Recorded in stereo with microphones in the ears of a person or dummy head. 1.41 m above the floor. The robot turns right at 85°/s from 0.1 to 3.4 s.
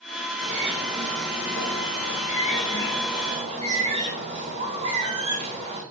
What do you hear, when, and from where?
0.4 s a bird: 45° right, 1.6 m; by 5.8 s 150° right, 1.6 m